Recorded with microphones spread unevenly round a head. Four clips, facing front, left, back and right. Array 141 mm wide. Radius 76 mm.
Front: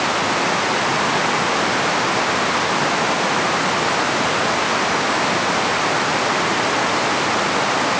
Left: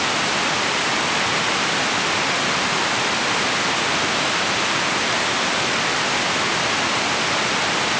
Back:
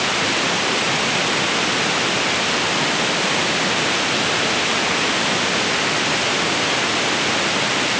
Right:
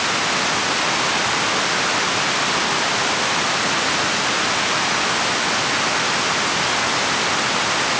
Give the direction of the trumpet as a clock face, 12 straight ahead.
No trumpet in this recording.